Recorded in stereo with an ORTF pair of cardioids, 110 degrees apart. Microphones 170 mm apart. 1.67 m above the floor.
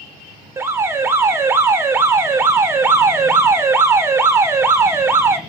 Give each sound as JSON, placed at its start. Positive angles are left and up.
{"t": 0.6, "sound": "an alarm", "azimuth_deg": -15, "distance_m": 1.7}